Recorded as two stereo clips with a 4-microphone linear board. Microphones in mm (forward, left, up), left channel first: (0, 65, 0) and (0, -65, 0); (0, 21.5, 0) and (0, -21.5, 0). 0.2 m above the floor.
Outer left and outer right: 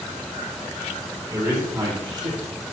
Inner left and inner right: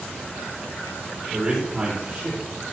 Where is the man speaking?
25° right (ahead or behind), 5.5 m; by 2.4 s 40° right (ahead or behind), 6 m.